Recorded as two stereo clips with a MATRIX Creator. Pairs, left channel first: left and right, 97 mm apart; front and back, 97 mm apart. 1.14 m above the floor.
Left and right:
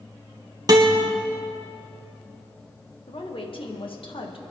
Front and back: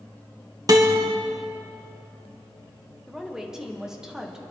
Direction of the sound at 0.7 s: 135° right.